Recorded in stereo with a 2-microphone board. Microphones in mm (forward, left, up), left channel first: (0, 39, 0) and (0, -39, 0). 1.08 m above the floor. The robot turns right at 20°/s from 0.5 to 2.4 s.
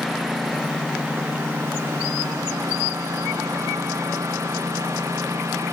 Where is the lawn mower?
Straight behind; by 5.7 s 140° right.